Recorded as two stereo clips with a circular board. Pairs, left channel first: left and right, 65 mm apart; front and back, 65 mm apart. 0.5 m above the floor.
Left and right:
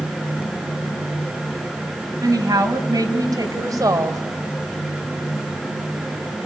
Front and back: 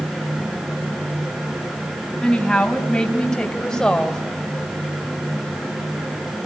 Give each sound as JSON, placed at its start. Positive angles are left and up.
{"t": 2.2, "sound": "a woman speaking", "azimuth_deg": -80, "distance_m": 3.5}